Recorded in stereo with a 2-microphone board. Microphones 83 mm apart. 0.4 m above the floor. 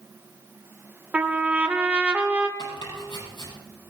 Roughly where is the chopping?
Left.